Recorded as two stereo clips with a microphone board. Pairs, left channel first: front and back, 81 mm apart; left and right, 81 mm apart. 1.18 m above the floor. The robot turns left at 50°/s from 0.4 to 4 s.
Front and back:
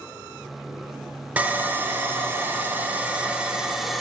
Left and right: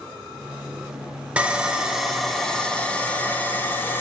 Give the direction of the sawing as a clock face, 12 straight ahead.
5 o'clock.